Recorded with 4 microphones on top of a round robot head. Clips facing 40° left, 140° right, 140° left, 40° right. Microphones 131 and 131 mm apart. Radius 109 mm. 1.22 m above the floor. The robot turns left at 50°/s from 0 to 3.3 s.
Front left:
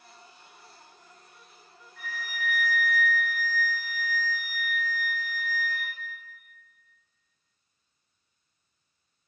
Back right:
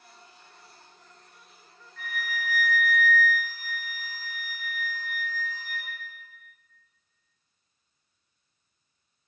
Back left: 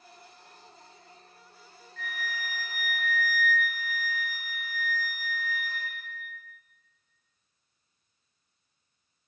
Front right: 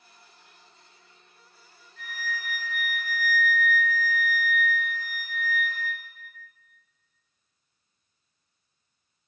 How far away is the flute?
About 1.0 m.